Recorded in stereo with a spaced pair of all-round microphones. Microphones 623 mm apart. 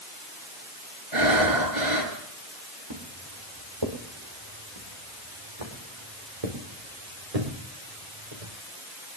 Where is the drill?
I don't hear a drill.